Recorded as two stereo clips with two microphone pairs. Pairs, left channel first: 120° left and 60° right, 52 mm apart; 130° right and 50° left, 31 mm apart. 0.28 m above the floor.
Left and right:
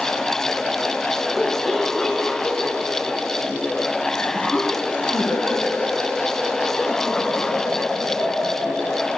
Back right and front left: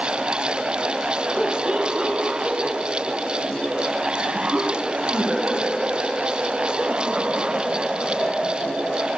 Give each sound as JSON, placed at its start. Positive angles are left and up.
{"t": 1.4, "sound": "laughter", "azimuth_deg": 15, "distance_m": 1.5}